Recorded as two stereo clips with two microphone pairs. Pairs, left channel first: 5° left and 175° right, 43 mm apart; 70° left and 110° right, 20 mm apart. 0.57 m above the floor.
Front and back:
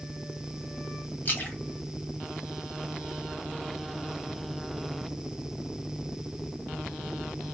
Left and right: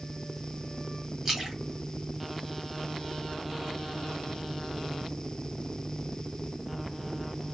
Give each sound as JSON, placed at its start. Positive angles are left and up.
{"t": 1.2, "sound": "a splash", "azimuth_deg": -40, "distance_m": 1.4}